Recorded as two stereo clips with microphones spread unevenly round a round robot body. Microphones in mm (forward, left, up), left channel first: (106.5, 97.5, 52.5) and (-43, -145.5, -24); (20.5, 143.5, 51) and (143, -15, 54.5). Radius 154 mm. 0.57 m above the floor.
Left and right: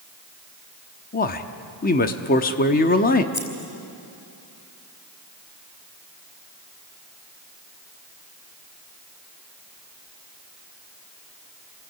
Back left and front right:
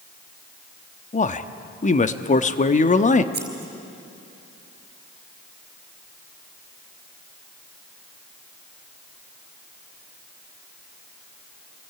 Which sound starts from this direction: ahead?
Scissors, at 3.3 s.